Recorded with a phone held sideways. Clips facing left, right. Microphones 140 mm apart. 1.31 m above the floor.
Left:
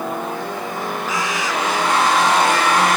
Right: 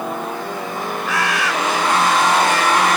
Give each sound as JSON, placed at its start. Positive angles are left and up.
{"t": 1.1, "sound": "a bird", "side_deg": -80}